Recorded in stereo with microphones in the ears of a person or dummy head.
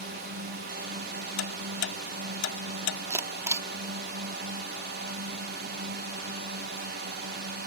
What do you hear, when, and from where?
0.0 s a drone: 50° right (ahead or behind)
1.4 s ticking: 75° left (ahead or behind)
3.1 s a camera shutter: 10° right (ahead or behind)